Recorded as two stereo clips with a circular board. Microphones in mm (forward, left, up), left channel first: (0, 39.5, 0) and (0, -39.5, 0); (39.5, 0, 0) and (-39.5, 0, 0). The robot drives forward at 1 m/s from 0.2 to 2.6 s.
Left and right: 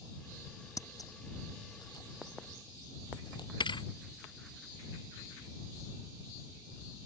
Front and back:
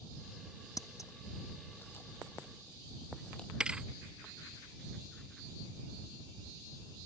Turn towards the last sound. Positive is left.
turn(degrees=100)